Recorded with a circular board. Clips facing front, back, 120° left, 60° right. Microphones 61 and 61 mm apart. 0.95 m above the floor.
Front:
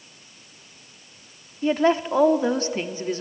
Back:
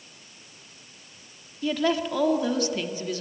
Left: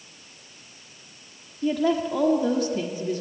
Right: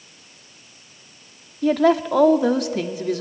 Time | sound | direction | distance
1.6 | a woman speaking | 55° right | 1.7 m